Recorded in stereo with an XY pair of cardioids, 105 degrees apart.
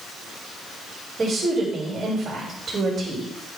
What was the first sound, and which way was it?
A woman speaking, 25° right.